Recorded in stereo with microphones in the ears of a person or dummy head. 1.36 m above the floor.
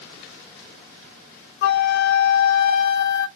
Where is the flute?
50° left (ahead or behind), 0.5 m.